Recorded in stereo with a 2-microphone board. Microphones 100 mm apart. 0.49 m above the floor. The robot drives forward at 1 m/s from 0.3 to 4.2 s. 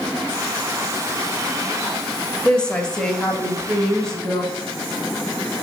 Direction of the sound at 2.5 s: 10° left (ahead or behind).